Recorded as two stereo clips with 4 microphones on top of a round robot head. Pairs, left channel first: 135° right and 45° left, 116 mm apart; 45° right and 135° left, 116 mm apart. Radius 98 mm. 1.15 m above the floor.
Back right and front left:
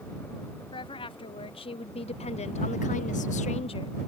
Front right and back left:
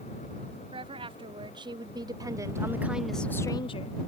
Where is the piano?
No piano in this recording.